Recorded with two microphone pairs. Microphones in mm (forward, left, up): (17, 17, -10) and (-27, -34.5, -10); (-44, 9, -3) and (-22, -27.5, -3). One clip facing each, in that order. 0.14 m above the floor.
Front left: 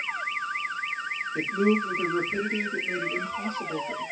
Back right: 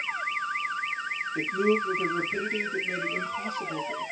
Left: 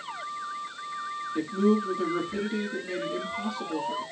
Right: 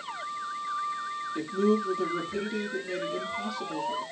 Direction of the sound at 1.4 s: 80° left.